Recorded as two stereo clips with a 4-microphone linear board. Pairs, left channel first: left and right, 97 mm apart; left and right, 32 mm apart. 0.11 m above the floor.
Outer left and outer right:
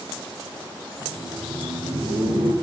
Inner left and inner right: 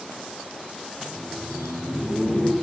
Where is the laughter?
70° right (ahead or behind), 5 m; by 2.5 s 75° right (ahead or behind), 5 m.